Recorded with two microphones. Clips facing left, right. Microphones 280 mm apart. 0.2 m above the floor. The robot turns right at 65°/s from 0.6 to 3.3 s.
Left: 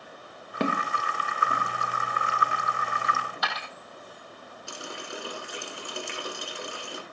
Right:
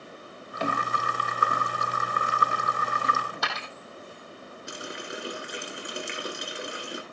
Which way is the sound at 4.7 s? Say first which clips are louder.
Right 1 dB; 20° right (ahead or behind).